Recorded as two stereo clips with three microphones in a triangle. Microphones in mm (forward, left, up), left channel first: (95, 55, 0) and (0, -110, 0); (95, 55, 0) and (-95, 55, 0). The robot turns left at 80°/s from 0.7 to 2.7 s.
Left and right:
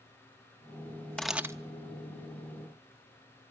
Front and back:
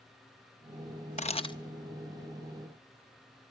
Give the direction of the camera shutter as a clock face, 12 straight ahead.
1 o'clock.